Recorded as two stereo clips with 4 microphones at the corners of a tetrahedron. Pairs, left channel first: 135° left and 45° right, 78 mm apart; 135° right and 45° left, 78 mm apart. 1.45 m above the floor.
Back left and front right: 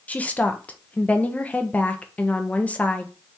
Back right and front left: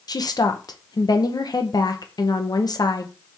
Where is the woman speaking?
155° right, 0.8 m.